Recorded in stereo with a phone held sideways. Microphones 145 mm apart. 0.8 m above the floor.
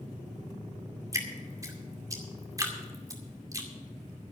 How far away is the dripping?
About 2 m.